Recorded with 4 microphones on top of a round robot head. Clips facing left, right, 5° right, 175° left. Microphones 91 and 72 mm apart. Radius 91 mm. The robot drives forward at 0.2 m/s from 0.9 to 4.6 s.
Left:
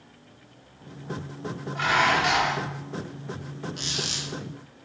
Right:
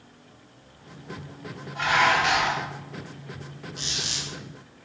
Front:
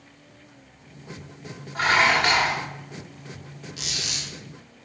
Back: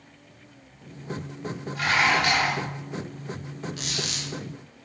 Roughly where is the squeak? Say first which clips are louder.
Left 2 dB, back 2 dB; behind left.